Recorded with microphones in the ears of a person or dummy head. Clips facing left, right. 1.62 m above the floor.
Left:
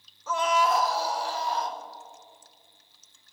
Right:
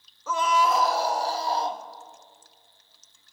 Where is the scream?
70° right (ahead or behind), 0.6 m; by 1.8 s 20° right (ahead or behind), 1.4 m.